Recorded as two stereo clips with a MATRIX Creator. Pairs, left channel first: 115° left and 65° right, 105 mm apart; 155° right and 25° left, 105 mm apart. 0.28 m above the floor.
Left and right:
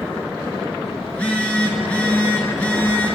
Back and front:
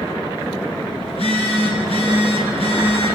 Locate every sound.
1.1 s a phone buzzing: 170° right, 4.5 m